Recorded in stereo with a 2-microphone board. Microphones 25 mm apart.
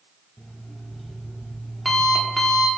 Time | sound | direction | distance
0.4 | an alarm clock | 5° left (ahead or behind) | 1.5 m